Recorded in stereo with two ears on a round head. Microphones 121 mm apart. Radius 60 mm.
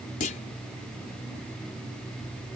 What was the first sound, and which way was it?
A clunk, 65° left (ahead or behind).